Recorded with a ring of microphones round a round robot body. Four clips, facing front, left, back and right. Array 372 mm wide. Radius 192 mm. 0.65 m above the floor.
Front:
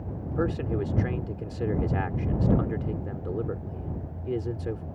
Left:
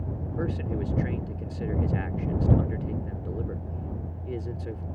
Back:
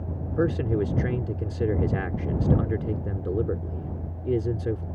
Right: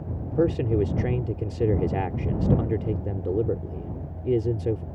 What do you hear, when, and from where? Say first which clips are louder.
0.3 s a man speaking: right 10 dB, back 3 dB; 120° right